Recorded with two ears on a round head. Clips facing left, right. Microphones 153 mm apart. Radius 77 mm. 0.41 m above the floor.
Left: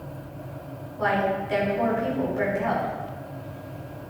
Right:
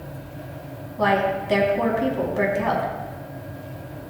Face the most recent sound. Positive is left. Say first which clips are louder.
# right 3 dB
turn(degrees=-70)  # may be behind; listen again after turning